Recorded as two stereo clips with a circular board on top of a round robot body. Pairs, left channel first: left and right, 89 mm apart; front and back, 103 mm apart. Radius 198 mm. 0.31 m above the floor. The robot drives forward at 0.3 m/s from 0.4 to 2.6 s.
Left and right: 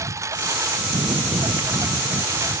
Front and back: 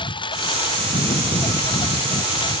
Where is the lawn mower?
35° right.